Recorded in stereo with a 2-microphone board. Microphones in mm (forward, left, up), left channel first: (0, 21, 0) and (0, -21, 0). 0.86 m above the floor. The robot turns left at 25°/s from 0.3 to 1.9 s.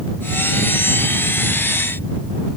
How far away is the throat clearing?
I don't hear throat clearing.